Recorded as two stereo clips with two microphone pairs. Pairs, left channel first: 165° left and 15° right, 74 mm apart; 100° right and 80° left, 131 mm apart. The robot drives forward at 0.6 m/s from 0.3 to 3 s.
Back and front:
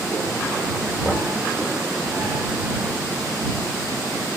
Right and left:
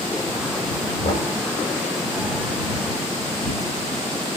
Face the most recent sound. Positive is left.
turn(degrees=-140)